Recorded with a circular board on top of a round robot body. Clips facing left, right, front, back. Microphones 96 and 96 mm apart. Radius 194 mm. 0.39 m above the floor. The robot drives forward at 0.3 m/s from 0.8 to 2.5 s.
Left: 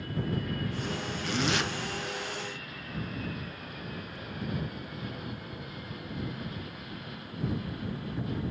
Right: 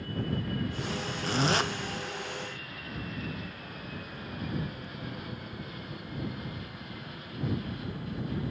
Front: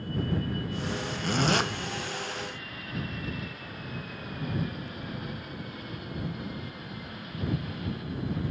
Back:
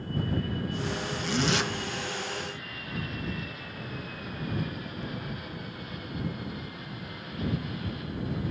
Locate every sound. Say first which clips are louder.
1.2 s a zipper: right 2 dB, front 2 dB; 40° right, 1.7 m